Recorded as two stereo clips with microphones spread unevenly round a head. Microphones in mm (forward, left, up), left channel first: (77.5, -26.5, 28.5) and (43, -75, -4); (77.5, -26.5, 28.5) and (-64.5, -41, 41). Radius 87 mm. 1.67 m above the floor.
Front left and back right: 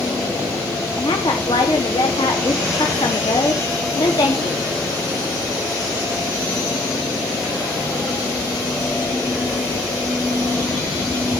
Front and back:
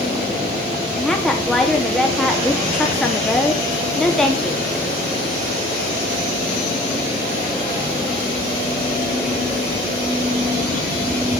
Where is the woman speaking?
95° left, 3 m.